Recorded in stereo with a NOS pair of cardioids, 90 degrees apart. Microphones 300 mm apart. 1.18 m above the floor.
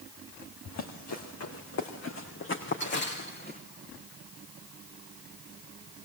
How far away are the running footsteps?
About 4.5 m.